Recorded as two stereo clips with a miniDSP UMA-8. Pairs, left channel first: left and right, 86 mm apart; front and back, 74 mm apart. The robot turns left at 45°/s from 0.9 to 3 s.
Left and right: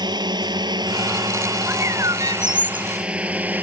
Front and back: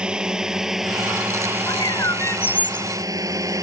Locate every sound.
0.0 s a drone: 105° right; by 3.6 s 155° right
1.7 s a bird: 25° right; by 2.9 s 80° right